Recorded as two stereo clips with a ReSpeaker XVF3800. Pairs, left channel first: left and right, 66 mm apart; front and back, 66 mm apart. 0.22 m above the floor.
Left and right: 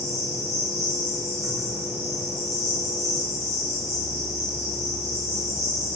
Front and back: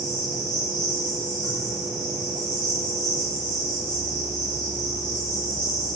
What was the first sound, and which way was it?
An insect, straight ahead.